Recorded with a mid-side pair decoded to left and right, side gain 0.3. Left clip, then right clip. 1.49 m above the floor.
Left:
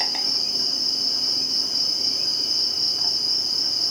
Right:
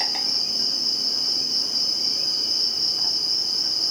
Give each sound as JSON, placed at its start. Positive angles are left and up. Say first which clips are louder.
{"t": 0.0, "sound": "an insect", "louder": "even", "azimuth_deg": 25, "distance_m": 1.3}